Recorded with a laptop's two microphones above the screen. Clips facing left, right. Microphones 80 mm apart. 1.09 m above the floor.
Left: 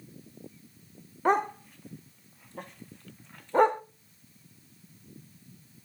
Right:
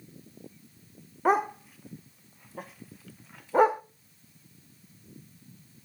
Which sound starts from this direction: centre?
A dog barking, at 1.2 s.